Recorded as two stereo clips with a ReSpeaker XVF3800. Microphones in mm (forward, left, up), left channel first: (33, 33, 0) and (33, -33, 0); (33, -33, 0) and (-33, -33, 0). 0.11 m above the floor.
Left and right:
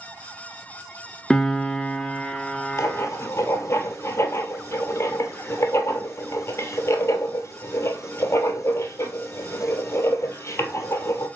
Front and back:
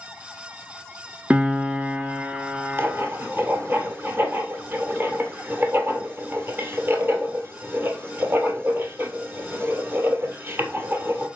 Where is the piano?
160° left, 0.7 m.